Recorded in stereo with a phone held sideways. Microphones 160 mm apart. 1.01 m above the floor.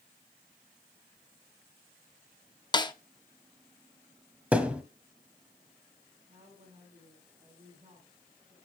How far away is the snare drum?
About 0.8 m.